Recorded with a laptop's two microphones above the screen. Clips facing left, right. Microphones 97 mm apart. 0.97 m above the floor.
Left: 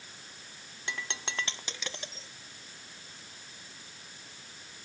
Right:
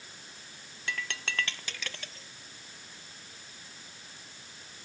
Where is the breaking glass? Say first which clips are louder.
Right 2 dB; 20° left (ahead or behind).